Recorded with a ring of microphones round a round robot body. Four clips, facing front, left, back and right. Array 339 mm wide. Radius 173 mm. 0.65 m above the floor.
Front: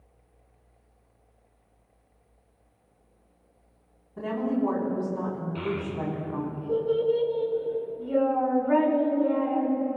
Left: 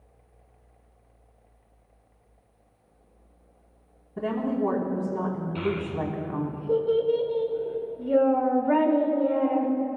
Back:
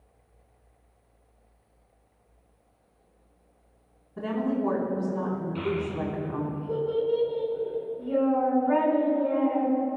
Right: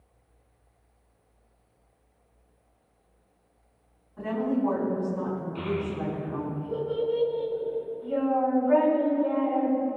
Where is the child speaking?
90° left, 6.5 m.